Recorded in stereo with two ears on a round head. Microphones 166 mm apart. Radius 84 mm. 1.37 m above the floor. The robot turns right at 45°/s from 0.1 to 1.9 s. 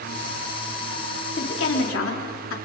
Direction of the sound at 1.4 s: 55° left (ahead or behind).